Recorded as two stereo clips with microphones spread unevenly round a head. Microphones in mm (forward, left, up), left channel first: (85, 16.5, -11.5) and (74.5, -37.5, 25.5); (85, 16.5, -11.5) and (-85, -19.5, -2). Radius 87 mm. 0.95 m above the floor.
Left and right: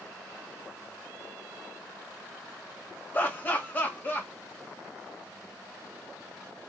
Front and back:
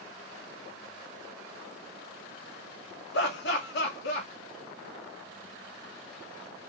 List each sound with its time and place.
3.1 s laughter: 35° left, 1.6 m